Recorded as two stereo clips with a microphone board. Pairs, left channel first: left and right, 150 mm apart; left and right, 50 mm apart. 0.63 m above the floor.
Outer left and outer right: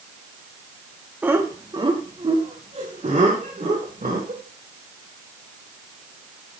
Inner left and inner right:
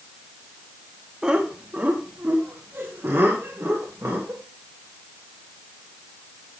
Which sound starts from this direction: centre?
Laughter, at 1.2 s.